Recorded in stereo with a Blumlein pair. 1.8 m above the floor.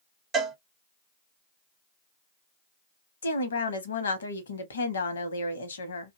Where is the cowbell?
20° right, 0.8 m.